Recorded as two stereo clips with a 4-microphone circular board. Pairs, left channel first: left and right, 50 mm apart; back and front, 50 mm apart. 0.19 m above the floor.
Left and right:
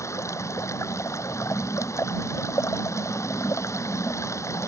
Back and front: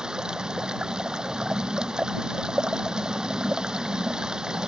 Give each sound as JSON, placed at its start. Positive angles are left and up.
{"t": 0.0, "sound": "running water", "azimuth_deg": 75}